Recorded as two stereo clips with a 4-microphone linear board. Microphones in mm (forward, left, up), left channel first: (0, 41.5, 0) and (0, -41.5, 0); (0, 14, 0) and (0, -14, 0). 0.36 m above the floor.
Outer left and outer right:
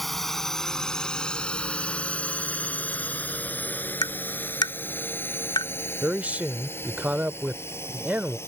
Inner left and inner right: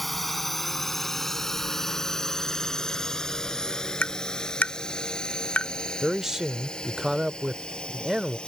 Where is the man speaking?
20° right (ahead or behind).